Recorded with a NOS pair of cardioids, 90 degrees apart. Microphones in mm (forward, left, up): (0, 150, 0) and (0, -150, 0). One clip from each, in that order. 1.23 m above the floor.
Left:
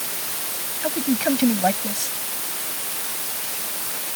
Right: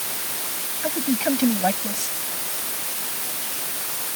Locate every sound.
0.8 s a man speaking: 10° left